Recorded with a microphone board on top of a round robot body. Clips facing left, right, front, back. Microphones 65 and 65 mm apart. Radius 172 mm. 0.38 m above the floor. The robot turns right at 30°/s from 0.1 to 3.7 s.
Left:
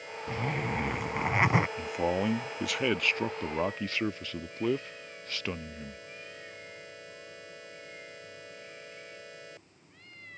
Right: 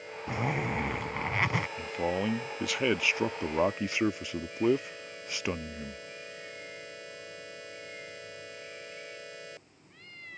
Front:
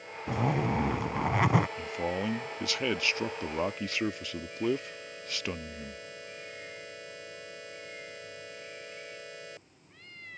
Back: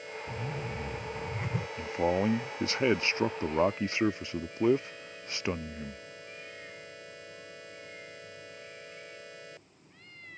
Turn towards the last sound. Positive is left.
turn(degrees=-150)